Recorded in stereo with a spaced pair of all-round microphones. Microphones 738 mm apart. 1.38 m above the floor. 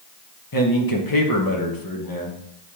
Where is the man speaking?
30° left (ahead or behind), 1.3 m.